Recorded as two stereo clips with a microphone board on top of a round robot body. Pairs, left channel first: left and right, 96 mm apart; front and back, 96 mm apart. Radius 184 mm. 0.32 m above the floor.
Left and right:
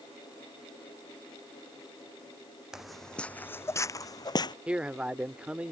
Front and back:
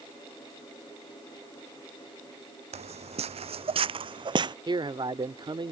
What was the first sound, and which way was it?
Footsteps, 175° right.